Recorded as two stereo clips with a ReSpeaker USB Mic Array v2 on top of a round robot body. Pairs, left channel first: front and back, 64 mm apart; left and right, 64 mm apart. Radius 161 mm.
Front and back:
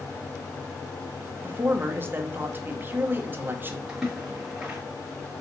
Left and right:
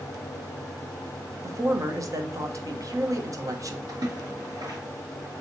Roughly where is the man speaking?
Behind right.